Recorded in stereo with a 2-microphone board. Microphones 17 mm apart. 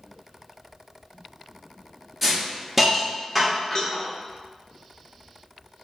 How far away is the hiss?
About 0.7 m.